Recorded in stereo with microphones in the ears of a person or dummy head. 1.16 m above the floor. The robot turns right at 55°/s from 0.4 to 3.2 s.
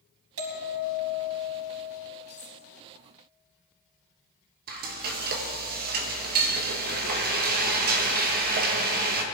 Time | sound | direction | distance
0.4 | a bell | 95° right | 4 m
2.3 | cutlery clinking | 25° right (ahead or behind) | 2.5 m
4.7 | frying | 55° right (ahead or behind) | 1.6 m